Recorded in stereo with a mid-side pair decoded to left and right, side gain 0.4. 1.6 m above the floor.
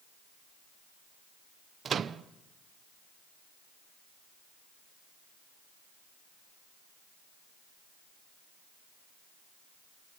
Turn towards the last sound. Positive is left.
turn(degrees=-55)